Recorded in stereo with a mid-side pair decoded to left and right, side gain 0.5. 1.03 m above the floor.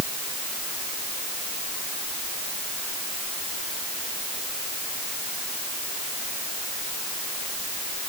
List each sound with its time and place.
Only background noise.